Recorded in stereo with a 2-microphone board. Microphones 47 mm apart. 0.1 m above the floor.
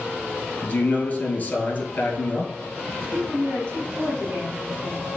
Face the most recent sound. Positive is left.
turn(degrees=-50)  # may be behind; listen again after turning